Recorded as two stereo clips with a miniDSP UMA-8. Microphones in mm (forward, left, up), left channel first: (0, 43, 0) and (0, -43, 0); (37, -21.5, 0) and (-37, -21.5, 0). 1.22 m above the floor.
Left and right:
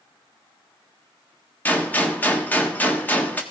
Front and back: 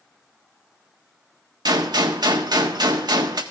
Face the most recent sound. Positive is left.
turn(degrees=160)